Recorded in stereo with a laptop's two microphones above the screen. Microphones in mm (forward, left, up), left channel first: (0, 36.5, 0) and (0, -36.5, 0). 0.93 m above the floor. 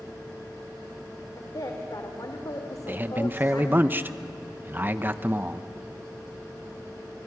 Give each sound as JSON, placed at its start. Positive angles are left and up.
{"t": 1.4, "sound": "a woman speaking", "side_deg": 55, "distance_m": 2.5}
{"t": 2.9, "sound": "a man speaking", "side_deg": -25, "distance_m": 0.8}